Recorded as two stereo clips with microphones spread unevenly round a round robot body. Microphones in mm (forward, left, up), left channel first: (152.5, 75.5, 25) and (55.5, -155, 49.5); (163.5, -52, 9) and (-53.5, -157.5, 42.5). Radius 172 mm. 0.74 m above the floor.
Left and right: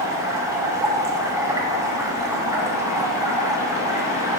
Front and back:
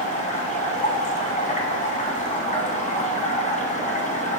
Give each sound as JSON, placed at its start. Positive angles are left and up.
{"t": 0.0, "sound": "running water", "azimuth_deg": -35, "distance_m": 2.5}